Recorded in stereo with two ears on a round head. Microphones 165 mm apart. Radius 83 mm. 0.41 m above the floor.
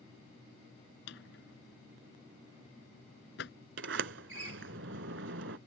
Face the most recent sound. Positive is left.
turn(degrees=-70)  # may be behind; listen again after turning